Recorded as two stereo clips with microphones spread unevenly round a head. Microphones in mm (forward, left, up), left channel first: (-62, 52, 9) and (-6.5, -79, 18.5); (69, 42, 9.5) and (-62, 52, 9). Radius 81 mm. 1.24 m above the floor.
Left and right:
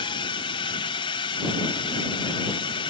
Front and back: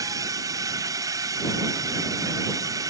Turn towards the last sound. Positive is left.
turn(degrees=135)